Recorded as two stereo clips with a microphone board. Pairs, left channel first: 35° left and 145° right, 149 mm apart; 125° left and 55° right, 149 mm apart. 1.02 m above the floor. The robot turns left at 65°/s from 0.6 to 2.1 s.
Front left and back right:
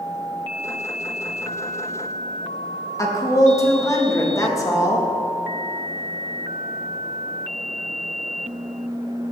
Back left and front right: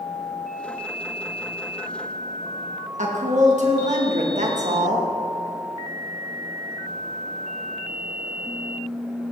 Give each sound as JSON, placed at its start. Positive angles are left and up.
{"t": 3.0, "sound": "a woman speaking", "azimuth_deg": -30, "distance_m": 1.5}